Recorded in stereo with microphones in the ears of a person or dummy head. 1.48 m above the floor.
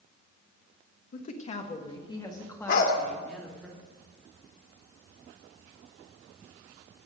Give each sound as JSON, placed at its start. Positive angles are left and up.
{"t": 1.1, "sound": "a woman speaking", "side_deg": 50, "distance_m": 1.5}
{"t": 2.7, "sound": "a dog barking", "side_deg": 55, "distance_m": 2.0}